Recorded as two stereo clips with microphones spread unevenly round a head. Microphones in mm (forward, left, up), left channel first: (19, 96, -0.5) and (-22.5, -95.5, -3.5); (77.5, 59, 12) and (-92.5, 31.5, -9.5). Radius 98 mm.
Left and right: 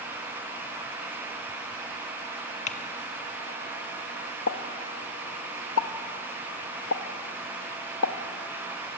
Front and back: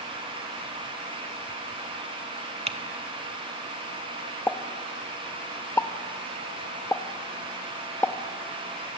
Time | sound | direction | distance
2.7 | typing on a keyboard | 130° left | 1.7 m
4.5 | a pop | 80° left | 1.2 m